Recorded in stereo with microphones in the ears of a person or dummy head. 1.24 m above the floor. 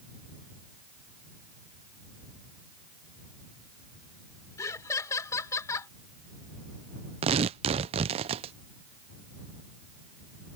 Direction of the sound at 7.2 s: 30° right (ahead or behind).